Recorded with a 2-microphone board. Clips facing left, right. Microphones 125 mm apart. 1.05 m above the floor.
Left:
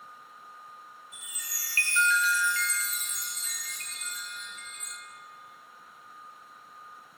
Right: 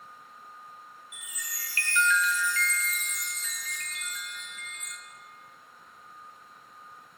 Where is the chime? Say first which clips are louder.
Right 3 dB; 35° left (ahead or behind), 0.6 m.